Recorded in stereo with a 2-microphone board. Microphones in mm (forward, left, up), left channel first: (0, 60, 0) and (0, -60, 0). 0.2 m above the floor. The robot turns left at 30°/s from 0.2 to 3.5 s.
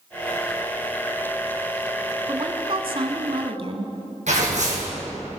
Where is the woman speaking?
60° right, 1.4 m; by 4.0 s 95° right, 1.4 m.